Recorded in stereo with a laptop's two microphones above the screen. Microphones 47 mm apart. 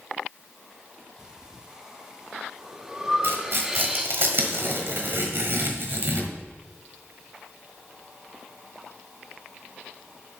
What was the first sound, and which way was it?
Breathing, 15° right (ahead or behind).